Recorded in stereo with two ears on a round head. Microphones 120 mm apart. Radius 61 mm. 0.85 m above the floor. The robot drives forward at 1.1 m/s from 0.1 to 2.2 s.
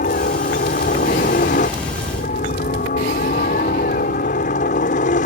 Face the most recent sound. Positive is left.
turn(degrees=60)  # may be behind; listen again after turning